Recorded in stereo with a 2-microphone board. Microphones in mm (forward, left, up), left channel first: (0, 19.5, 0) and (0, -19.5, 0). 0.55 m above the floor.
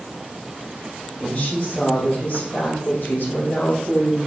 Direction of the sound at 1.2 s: 20° left (ahead or behind).